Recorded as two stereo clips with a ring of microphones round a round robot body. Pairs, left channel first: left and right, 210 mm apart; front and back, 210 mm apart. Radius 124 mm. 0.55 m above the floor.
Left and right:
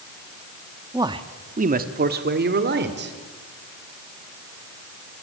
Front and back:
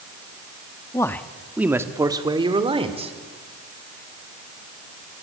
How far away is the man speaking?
About 1.3 m.